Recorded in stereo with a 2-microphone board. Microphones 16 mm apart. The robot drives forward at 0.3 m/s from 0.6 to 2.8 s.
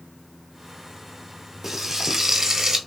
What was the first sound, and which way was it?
Frying, 25° right (ahead or behind).